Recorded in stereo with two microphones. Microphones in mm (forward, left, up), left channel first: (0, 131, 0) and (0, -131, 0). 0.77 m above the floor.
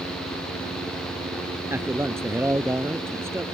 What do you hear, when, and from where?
1.7 s a man speaking: 10° right (ahead or behind)